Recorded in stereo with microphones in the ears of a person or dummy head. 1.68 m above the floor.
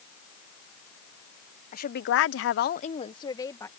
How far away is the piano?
I don't hear a piano.